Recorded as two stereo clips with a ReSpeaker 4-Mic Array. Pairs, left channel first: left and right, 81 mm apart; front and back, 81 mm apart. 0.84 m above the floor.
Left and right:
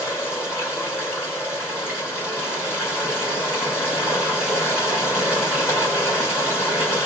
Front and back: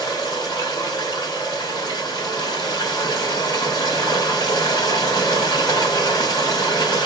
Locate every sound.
0.0 s running water: 35° left, 2.5 m